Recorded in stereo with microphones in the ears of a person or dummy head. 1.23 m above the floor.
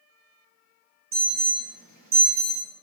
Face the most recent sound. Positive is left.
turn(degrees=-45)  # may be behind; listen again after turning